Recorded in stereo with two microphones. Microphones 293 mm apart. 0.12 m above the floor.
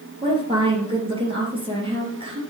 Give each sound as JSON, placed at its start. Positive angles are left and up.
{"t": 0.2, "sound": "a woman speaking", "side_deg": -15, "distance_m": 3.0}